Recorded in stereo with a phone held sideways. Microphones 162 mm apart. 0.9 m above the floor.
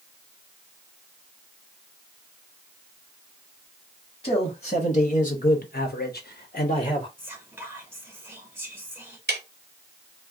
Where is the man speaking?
40° left (ahead or behind), 1.3 m; by 7.1 s 35° left (ahead or behind), 0.6 m.